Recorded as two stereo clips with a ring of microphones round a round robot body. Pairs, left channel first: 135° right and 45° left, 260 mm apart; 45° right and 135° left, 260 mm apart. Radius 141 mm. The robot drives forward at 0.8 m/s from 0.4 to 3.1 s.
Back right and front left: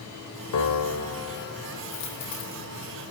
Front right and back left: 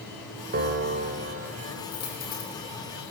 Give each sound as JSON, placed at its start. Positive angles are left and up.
{"t": 0.5, "sound": "a piano", "azimuth_deg": -170, "distance_m": 2.0}
{"t": 1.9, "sound": "a dropped coin", "azimuth_deg": -105, "distance_m": 8.0}